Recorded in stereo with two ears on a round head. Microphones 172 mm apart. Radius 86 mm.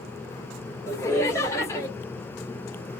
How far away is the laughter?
About 0.9 m.